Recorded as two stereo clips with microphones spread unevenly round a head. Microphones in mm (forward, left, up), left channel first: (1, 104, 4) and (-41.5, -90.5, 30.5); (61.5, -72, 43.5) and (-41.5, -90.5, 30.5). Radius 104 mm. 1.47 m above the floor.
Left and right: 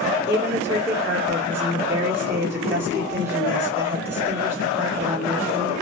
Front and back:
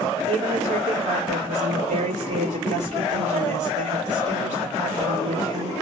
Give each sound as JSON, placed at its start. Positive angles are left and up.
{"t": 0.3, "sound": "a woman speaking", "azimuth_deg": 180, "distance_m": 2.0}